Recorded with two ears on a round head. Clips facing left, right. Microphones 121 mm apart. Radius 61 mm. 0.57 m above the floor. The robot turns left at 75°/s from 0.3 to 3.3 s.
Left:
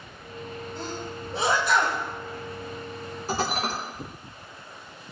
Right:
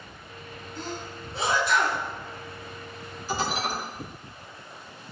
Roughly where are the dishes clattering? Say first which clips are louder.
Left 1 dB; left.